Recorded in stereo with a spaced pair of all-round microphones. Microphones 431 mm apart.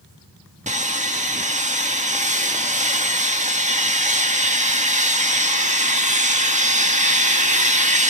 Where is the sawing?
15° right (ahead or behind), 1.8 m.